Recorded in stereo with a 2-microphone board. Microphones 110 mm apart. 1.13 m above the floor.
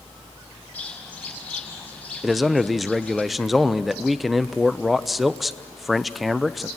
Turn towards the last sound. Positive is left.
turn(degrees=0)  # may be behind; listen again after turning